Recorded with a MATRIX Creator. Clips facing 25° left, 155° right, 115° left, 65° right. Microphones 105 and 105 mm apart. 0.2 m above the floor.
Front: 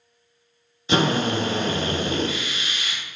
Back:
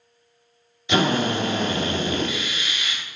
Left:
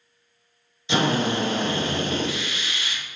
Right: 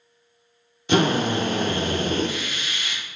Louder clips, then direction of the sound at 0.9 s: Even, right 2 dB; 30° right.